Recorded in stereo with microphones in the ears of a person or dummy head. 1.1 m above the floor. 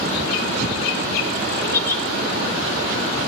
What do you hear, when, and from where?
1.6 s a giggle: 25° left (ahead or behind), 1.8 m